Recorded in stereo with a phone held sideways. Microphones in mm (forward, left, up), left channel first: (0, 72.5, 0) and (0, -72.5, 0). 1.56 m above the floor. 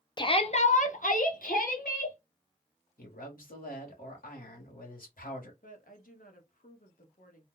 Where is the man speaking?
85° left, 1.3 m.